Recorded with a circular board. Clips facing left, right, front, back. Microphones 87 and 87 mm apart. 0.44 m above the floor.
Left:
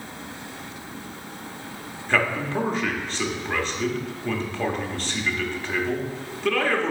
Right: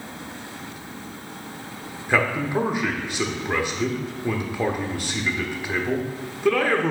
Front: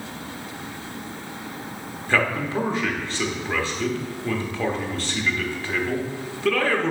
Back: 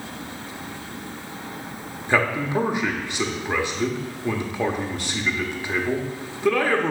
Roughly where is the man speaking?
Behind right.